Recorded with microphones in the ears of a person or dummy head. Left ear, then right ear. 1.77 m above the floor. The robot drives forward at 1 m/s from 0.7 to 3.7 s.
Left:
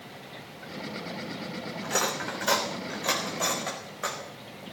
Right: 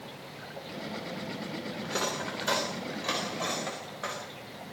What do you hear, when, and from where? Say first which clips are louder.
1.8 s cutlery clinking: left 4 dB; 20° left (ahead or behind), 3 m; by 4.2 s 15° left (ahead or behind), 4.5 m